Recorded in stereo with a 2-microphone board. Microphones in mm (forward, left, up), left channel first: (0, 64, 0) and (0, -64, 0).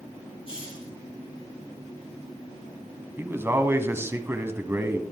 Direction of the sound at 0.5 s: 45° left (ahead or behind).